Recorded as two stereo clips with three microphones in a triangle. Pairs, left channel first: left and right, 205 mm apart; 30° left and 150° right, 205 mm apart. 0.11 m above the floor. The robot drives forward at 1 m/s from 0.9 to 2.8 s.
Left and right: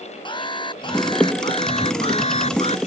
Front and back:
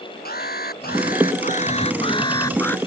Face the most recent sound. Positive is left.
turn(degrees=105)